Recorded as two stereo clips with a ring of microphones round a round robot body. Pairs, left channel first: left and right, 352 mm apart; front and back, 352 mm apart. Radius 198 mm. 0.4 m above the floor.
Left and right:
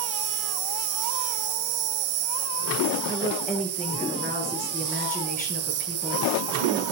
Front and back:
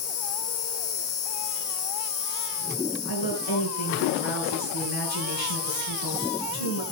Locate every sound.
0.0 s an insect: 55° right, 4 m
3.0 s a woman speaking: 20° left, 7.5 m